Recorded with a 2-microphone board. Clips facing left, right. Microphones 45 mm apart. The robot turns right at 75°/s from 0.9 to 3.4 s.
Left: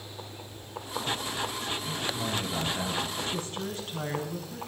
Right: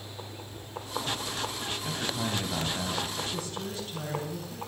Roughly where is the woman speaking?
Left.